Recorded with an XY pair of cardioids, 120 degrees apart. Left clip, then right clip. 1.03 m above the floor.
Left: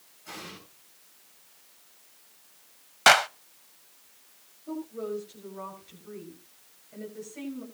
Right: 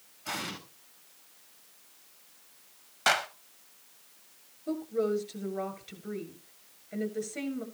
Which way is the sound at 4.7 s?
55° right.